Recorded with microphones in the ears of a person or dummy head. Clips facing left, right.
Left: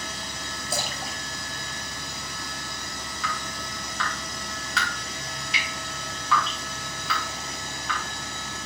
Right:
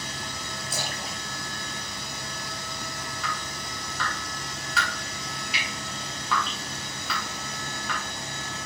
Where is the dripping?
5° right (ahead or behind), 3.5 m.